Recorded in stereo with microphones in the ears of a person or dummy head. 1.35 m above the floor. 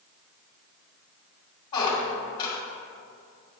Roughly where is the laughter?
No laughter in this recording.